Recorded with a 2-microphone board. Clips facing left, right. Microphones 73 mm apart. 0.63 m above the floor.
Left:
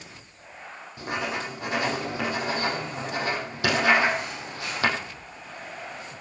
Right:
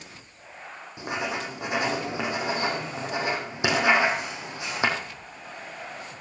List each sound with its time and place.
1.0 s writing: 15° right (ahead or behind), 4.5 m